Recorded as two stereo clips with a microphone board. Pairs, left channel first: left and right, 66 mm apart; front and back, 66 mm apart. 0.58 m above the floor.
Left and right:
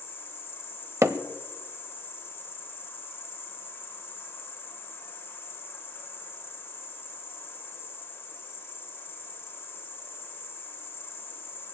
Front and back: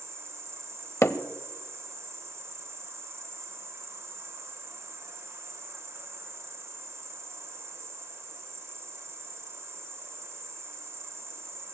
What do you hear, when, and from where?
0.0 s an insect: 140° left, 1.6 m
1.0 s hammering: 45° right, 0.8 m